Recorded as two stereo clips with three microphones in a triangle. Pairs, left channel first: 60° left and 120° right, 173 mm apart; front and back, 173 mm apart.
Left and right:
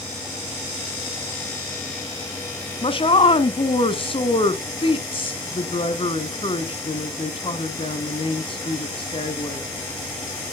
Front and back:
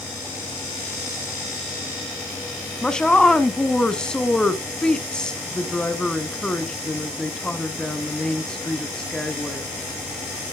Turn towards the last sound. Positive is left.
turn(degrees=80)